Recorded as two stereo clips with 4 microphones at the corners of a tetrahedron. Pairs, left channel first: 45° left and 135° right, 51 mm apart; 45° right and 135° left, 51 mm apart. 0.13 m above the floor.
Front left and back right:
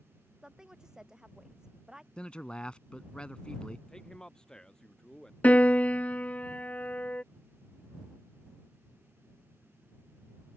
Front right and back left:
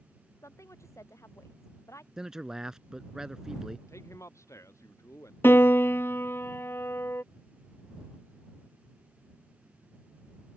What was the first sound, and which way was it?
A woman speaking, 60° right.